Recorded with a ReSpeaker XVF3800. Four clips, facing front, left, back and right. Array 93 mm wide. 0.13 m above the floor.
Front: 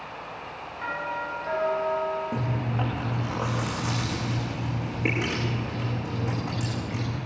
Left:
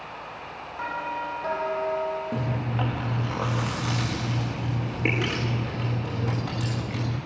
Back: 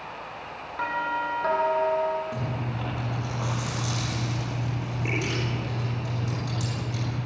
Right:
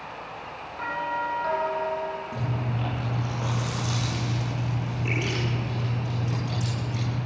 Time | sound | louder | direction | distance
0.8 | a doorbell | right 2 dB, back 4 dB | 165° left | 6 m
2.3 | chewing | left 2 dB, front 3 dB | 60° left | 9.5 m